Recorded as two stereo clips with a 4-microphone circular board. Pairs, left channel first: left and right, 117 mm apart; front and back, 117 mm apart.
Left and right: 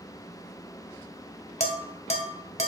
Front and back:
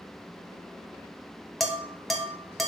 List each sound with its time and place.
1.6 s dishes clattering: 90° left, 1.3 m